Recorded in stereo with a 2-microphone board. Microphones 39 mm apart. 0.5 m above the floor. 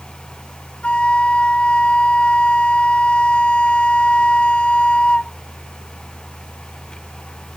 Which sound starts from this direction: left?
A flute, at 0.8 s.